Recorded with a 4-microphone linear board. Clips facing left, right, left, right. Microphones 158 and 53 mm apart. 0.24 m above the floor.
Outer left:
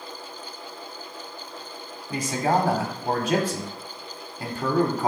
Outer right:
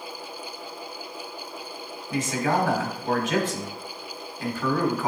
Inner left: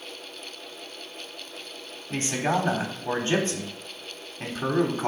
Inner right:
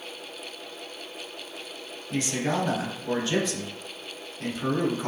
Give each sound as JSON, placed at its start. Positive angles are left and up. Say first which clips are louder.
{"t": 2.1, "sound": "a man speaking", "louder": "outer left 1 dB, inner left 2 dB", "side_deg": 35, "distance_m": 1.4}